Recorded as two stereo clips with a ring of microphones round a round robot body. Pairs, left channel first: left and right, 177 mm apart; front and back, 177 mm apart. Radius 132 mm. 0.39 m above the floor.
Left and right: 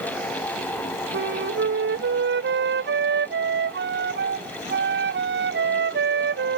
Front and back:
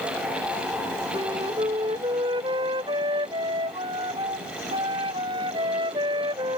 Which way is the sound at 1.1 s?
105° right.